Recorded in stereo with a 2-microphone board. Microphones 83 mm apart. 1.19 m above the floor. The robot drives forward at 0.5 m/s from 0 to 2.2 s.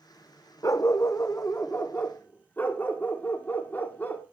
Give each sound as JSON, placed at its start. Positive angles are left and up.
{"t": 0.6, "sound": "a dog barking", "side_deg": 40, "distance_m": 0.8}